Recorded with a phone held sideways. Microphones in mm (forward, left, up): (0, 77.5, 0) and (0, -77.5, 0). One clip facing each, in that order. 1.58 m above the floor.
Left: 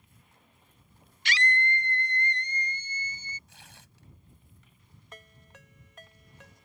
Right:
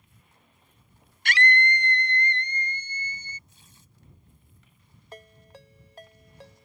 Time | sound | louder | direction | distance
1.2 | a scream | right 5 dB | 50° right (ahead or behind) | ?
3.5 | tearing paper | left 4 dB | 80° left | ?
5.1 | a ringtone | right 6 dB | 35° right (ahead or behind) | ?